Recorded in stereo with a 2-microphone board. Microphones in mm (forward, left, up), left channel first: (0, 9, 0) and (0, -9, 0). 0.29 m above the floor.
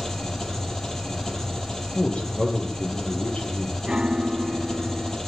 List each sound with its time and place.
0.0 s an engine running: 20° left (ahead or behind), 6.5 m
1.9 s a man speaking: 70° left (ahead or behind), 9 m
3.9 s a piano: 50° right (ahead or behind), 1.3 m